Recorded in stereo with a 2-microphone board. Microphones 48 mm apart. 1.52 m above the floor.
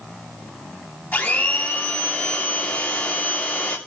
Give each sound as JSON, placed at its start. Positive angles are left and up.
{"t": 1.1, "sound": "a blender", "side_deg": 35, "distance_m": 2.5}